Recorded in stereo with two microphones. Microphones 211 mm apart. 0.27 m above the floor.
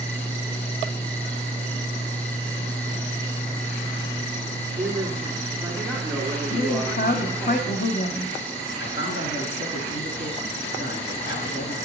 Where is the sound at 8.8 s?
60° left (ahead or behind), 3.5 m.